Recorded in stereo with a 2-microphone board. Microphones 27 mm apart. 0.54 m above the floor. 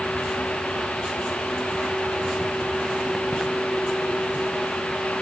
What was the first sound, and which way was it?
Only background noise.